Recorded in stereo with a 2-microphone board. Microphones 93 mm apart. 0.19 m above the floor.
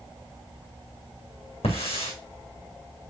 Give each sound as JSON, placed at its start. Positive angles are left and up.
{"t": 1.6, "sound": "a hiss", "side_deg": 75, "distance_m": 4.5}